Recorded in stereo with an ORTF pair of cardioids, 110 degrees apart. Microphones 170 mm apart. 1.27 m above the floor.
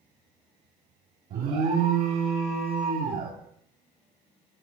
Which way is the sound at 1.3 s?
60° right.